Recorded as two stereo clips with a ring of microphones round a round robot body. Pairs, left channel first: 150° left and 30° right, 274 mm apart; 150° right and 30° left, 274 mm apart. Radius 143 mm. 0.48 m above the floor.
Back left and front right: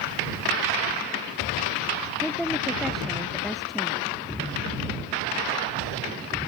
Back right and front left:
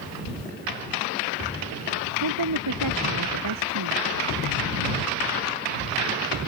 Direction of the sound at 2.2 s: 60° left.